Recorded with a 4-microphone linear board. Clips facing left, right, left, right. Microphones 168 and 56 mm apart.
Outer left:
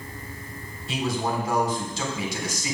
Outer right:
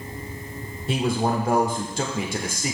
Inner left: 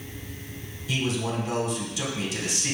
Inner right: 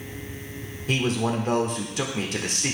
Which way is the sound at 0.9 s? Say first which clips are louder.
Outer right 4 dB, inner right 4 dB; 50° right (ahead or behind).